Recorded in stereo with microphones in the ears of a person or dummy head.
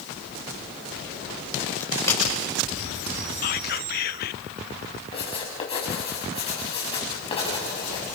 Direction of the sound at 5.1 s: 30° left (ahead or behind).